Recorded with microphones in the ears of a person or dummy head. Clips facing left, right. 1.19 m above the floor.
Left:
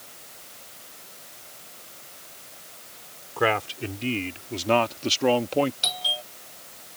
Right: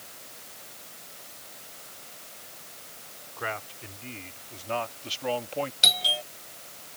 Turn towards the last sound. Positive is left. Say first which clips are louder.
# right 1 dB
turn(degrees=-25)  # may be behind; listen again after turning